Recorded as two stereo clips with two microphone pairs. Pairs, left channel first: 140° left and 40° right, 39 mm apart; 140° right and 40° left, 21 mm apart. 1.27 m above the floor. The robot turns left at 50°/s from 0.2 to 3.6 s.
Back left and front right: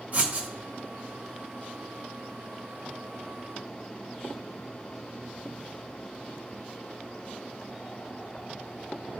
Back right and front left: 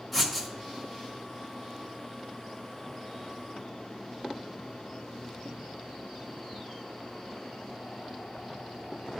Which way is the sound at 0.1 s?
55° right.